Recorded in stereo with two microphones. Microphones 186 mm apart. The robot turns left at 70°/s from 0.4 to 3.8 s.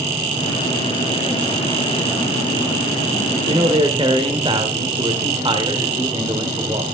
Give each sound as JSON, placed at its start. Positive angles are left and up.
{"t": 3.5, "sound": "a man speaking", "side_deg": -30, "distance_m": 1.5}